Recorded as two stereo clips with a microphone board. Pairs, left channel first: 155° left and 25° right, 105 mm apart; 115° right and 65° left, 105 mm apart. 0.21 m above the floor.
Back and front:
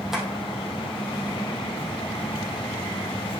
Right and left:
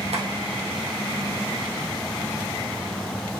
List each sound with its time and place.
0.1 s tapping: 65° left, 1.8 m